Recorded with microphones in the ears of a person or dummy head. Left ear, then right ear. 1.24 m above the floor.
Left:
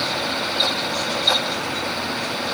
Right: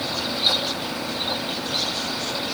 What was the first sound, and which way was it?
Only background noise.